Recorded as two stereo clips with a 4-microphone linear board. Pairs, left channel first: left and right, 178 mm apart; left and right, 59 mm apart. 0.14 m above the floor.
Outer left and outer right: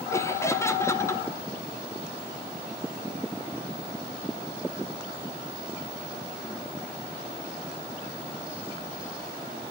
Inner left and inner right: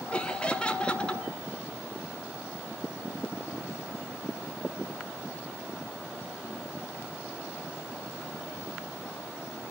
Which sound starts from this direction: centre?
Laughter, at 0.1 s.